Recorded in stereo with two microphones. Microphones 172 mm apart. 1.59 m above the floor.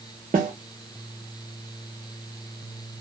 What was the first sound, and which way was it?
A snare drum, 50° right (ahead or behind).